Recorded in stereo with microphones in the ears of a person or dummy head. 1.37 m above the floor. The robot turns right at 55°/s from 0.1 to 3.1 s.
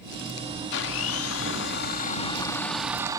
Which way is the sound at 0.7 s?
65° left.